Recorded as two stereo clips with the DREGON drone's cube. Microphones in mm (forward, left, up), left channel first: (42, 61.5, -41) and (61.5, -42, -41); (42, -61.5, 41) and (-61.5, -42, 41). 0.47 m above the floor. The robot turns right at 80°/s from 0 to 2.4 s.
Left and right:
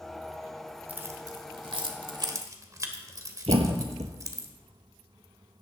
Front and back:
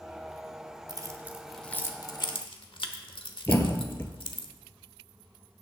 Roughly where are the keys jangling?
Behind right.